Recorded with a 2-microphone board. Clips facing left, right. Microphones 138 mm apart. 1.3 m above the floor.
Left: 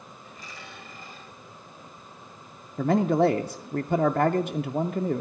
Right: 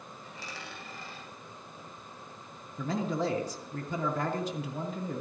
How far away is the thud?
I don't hear a thud.